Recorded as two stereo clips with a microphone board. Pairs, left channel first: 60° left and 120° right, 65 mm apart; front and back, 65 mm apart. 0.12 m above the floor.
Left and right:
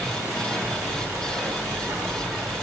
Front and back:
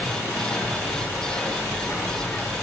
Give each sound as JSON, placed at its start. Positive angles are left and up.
{"t": 0.0, "sound": "an insect", "azimuth_deg": -70, "distance_m": 4.0}